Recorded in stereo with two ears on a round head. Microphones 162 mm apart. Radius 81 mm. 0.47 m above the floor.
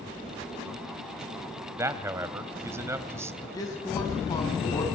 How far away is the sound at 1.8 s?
About 2 m.